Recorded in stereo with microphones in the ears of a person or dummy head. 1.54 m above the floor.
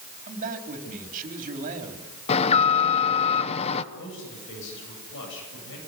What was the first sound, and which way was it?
A man speaking, 45° right (ahead or behind).